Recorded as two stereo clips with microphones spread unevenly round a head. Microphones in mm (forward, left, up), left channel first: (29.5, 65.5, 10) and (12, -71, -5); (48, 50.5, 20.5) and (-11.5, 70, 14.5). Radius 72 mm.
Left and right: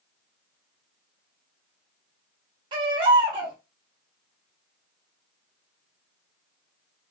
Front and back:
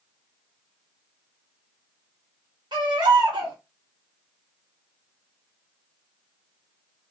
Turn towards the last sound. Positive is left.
turn(degrees=-160)